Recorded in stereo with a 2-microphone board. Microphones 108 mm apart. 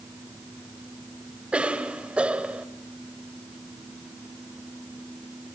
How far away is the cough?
About 1.6 m.